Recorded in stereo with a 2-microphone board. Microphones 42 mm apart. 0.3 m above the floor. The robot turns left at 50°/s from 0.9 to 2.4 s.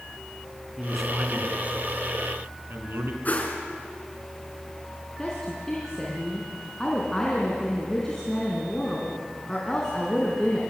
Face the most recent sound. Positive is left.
turn(degrees=10)  # may be behind; listen again after turning